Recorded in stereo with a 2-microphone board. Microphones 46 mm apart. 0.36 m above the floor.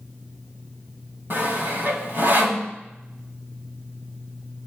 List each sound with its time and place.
1.3 s sawing: 50° right (ahead or behind), 2.5 m